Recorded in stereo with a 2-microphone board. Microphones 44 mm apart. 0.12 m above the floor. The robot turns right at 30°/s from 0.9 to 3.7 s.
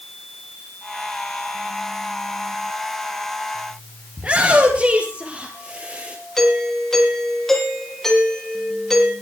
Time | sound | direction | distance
4.2 | a shout | 30° right (ahead or behind) | 3 m
6.4 | a doorbell | 10° left (ahead or behind) | 6.5 m